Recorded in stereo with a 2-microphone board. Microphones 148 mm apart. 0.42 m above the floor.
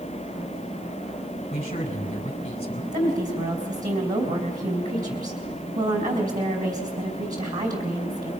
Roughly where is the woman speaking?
Right.